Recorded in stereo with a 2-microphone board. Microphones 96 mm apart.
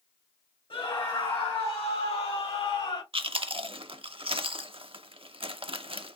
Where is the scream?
65° left (ahead or behind), 3 m.